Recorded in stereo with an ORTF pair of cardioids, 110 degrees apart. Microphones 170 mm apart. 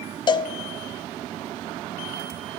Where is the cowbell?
30° left, 0.5 m.